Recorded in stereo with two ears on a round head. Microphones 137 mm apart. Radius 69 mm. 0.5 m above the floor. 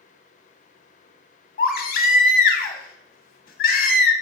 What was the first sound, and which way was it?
A baby crying, 60° left (ahead or behind).